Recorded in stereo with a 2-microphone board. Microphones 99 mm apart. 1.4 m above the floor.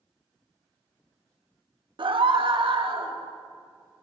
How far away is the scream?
About 1.8 m.